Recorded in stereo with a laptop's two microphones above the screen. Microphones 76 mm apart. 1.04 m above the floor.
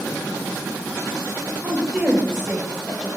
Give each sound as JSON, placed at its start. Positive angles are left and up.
{"t": 1.6, "sound": "a woman speaking", "side_deg": -15, "distance_m": 1.1}